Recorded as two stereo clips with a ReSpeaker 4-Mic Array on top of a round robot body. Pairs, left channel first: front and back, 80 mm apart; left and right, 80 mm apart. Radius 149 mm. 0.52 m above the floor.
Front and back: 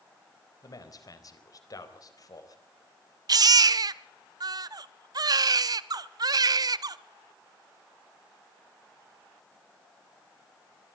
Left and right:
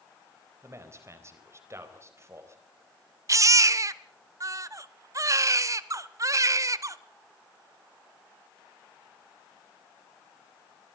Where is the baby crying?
140° right, 0.5 m.